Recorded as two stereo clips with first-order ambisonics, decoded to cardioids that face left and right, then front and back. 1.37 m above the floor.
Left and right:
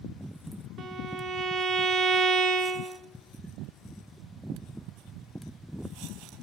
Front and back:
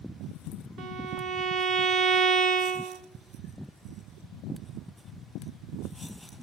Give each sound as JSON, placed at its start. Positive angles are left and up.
{"t": 0.8, "sound": "a violin", "azimuth_deg": -140, "distance_m": 0.9}